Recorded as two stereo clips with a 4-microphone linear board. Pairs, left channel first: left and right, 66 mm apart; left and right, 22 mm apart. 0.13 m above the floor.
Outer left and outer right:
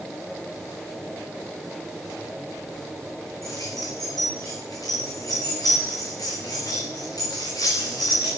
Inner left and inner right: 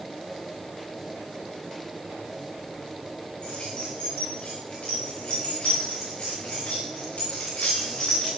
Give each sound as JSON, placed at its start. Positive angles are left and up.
{"t": 3.4, "sound": "keys jangling", "side_deg": 60, "distance_m": 9.0}